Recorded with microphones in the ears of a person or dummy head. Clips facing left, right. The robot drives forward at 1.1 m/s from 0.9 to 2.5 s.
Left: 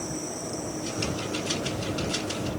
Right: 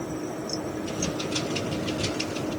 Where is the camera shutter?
I don't hear a camera shutter.